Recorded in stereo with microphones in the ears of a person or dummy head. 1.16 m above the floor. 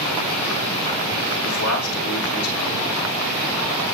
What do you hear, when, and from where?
1.4 s a man speaking: 80° left, 3 m